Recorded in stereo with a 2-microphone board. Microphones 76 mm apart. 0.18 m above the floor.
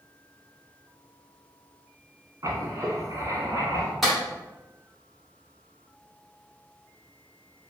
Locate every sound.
2.4 s writing: 45° right (ahead or behind), 0.7 m
4.0 s a clap: 5° right (ahead or behind), 1.4 m